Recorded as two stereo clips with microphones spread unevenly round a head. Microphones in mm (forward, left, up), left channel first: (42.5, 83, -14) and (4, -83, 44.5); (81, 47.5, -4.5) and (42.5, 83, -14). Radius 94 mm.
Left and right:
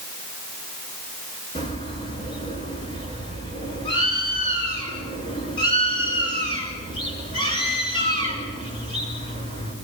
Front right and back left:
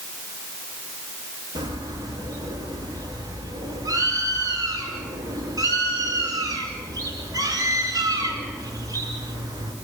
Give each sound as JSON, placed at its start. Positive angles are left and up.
{"t": 1.6, "sound": "a bird", "azimuth_deg": 145, "distance_m": 5.0}